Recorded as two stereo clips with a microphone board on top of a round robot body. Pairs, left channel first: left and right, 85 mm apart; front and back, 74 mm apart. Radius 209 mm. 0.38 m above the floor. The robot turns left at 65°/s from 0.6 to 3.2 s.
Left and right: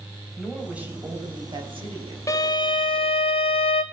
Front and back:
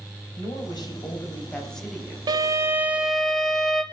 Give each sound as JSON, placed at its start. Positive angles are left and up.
{"t": 0.3, "sound": "a woman speaking", "azimuth_deg": -5, "distance_m": 4.0}
{"t": 2.3, "sound": "a violin", "azimuth_deg": 145, "distance_m": 0.5}